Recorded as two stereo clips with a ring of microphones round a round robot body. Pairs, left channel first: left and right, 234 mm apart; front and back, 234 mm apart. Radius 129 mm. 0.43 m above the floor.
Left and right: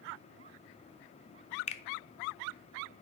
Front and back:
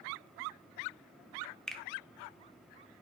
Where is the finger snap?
85° left, 0.6 m.